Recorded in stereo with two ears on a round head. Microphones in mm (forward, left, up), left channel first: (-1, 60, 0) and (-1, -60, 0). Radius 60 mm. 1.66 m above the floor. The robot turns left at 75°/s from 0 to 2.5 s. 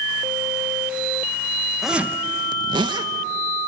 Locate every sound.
1.8 s a zipper: straight ahead, 1.0 m; by 3.1 s 50° right, 1.0 m